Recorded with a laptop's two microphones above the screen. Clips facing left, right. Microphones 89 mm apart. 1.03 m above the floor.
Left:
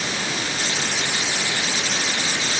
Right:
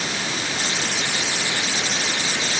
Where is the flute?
No flute in this recording.